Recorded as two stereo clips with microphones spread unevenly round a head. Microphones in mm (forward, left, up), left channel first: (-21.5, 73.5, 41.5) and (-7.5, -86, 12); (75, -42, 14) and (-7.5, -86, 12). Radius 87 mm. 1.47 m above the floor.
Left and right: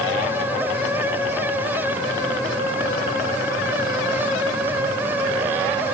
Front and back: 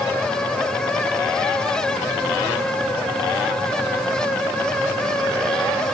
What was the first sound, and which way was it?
Only background noise.